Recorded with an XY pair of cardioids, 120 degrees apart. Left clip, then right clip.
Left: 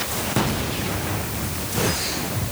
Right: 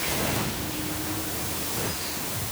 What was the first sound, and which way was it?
Only background noise.